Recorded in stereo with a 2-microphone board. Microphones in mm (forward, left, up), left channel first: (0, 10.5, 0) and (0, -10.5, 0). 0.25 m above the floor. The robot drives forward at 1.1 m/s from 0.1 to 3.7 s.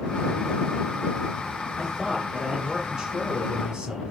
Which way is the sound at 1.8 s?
20° right (ahead or behind).